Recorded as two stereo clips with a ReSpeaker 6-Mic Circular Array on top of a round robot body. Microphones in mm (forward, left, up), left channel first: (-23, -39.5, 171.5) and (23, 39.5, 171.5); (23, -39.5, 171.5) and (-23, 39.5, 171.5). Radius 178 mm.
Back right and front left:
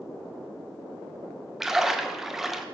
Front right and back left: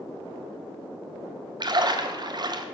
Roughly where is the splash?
Behind left.